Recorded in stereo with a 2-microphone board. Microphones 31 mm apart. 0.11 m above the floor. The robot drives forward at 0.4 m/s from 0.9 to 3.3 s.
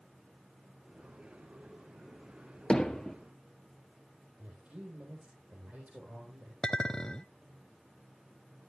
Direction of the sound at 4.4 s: 60° right (ahead or behind).